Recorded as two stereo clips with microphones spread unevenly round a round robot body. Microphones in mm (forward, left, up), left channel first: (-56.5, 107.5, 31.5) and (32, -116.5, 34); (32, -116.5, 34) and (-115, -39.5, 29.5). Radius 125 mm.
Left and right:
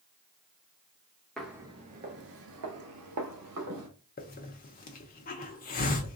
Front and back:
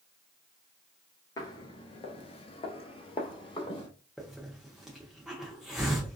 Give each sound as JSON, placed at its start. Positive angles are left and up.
{"t": 1.4, "sound": "footsteps", "azimuth_deg": 25, "distance_m": 0.5}
{"t": 4.2, "sound": "a hiss", "azimuth_deg": 65, "distance_m": 0.7}